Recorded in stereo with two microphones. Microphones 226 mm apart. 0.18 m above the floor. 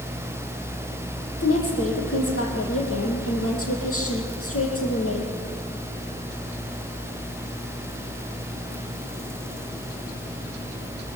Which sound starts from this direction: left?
A woman speaking, at 1.4 s.